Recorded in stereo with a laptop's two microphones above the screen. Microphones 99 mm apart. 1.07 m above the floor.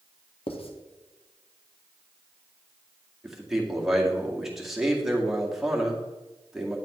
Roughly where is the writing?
Left.